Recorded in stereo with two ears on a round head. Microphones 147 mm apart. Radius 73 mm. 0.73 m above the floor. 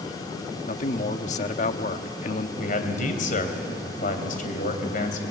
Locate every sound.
0.7 s a man speaking: 45° left (ahead or behind), 1.2 m
2.6 s a man speaking: 50° left (ahead or behind), 3 m